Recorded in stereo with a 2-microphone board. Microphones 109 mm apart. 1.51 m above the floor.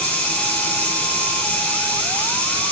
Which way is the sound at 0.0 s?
10° left (ahead or behind).